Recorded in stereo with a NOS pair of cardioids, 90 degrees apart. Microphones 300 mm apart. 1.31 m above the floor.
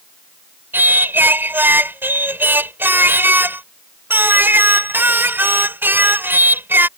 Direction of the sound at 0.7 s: 5° right.